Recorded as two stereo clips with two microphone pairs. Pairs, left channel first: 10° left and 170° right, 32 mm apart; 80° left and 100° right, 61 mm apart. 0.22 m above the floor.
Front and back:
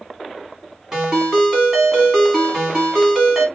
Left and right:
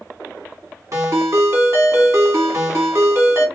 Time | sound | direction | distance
0.9 | a ringtone | 110° right | 1.6 m